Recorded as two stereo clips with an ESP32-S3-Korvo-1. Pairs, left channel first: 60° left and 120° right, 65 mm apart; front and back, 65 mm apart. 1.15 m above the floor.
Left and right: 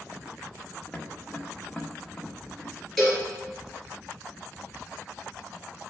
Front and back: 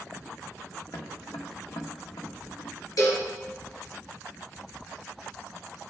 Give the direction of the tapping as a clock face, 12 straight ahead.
12 o'clock.